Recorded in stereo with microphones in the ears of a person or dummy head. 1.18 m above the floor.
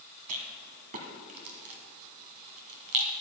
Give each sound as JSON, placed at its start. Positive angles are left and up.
{"t": 0.3, "sound": "a rattle", "side_deg": -45, "distance_m": 1.5}